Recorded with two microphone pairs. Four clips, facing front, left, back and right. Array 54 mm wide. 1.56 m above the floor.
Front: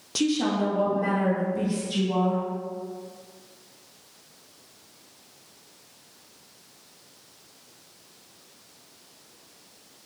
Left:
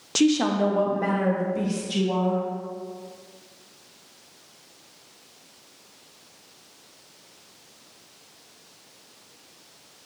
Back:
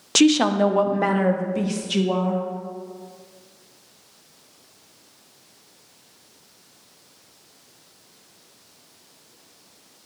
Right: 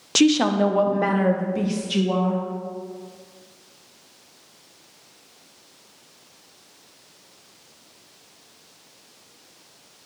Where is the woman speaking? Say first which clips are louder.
Right 3 dB, back 8 dB; 155° right, 0.5 m.